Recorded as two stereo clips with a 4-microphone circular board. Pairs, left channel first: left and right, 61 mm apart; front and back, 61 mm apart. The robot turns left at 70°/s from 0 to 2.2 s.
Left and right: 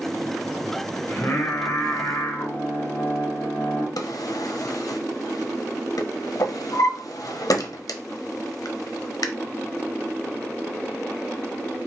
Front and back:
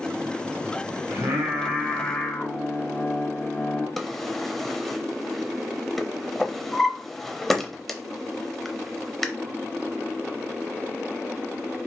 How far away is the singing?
About 1.5 m.